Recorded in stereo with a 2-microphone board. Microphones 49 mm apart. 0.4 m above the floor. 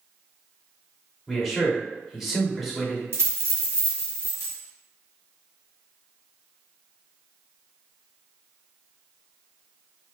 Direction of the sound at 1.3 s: 5° right (ahead or behind).